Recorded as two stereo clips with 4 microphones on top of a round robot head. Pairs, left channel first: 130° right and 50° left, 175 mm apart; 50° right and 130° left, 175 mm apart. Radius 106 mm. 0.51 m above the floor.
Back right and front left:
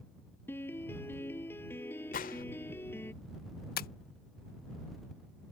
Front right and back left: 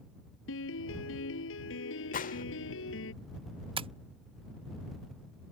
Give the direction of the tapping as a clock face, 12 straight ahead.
6 o'clock.